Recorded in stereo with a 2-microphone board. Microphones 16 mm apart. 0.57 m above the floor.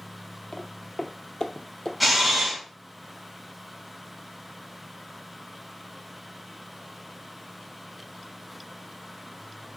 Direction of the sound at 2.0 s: Centre (ahead or behind).